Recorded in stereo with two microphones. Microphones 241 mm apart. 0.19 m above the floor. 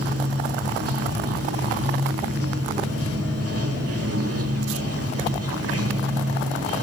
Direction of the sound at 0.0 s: 75° right (ahead or behind).